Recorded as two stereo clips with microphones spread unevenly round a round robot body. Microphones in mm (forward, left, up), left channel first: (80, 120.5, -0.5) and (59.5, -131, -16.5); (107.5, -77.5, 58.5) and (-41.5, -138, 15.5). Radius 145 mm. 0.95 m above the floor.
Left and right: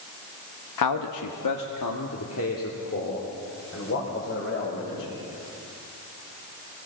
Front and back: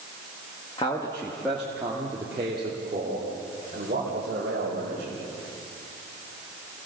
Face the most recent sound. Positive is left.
turn(degrees=145)